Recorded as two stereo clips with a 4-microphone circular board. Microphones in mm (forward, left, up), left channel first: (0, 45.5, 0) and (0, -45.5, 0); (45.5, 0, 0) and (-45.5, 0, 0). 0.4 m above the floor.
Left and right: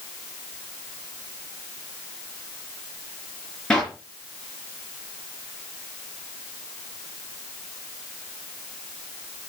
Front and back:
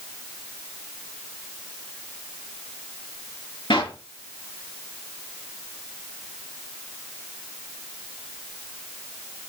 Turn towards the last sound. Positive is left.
turn(degrees=10)